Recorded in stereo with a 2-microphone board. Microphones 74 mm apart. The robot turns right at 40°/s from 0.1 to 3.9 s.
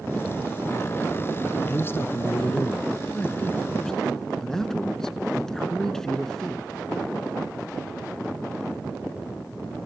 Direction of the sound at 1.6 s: 30° left (ahead or behind).